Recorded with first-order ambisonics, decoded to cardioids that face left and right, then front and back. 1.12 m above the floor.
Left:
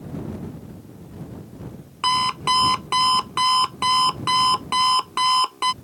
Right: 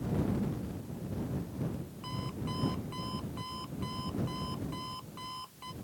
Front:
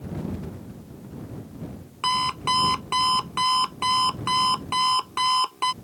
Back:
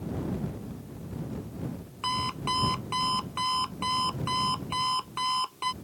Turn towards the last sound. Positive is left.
turn(degrees=65)